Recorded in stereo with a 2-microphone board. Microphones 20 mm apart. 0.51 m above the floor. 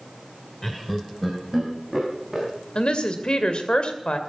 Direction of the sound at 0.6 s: 25° left (ahead or behind).